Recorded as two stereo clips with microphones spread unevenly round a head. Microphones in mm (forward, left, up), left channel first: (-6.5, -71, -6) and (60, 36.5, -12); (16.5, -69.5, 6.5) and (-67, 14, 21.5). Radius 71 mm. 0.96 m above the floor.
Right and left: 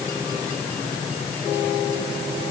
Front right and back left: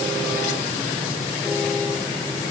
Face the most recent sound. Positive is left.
No sound to turn to.